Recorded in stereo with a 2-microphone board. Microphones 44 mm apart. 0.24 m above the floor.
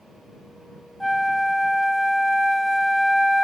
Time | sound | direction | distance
1.0 | a flute | 5° left (ahead or behind) | ?